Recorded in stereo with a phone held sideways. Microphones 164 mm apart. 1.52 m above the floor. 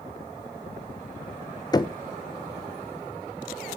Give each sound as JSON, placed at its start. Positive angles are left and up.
{"t": 1.7, "sound": "knocking", "side_deg": 25, "distance_m": 0.8}